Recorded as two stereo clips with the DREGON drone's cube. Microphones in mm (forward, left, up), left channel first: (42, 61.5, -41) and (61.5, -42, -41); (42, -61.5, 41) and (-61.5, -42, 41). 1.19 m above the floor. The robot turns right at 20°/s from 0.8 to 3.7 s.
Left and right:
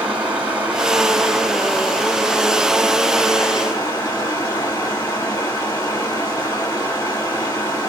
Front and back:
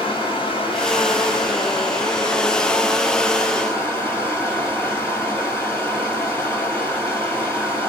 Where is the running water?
5° right, 1.7 m; by 7.9 s 50° left, 1.7 m.